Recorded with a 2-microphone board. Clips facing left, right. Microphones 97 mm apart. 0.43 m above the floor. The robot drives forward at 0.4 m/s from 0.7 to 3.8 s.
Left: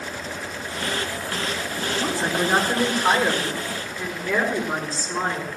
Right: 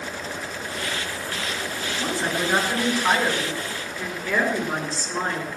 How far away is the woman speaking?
About 5.5 m.